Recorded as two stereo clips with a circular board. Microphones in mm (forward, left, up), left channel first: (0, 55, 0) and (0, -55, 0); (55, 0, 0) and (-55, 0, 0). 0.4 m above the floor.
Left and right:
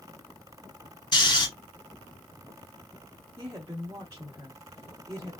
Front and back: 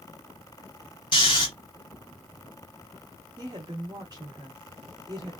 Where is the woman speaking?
145° right, 1.1 m.